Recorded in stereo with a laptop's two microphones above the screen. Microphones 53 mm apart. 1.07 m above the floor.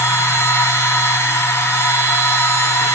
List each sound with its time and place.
0.0 s a machine running: 70° left (ahead or behind), 2.5 m